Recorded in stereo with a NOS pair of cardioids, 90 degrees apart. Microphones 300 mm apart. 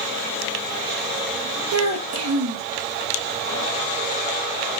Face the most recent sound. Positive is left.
turn(degrees=-60)